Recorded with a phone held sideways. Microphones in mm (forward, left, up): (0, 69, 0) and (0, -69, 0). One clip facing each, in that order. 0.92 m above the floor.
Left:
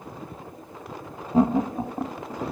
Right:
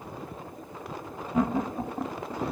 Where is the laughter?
30° left (ahead or behind); by 2.5 s 5° left (ahead or behind).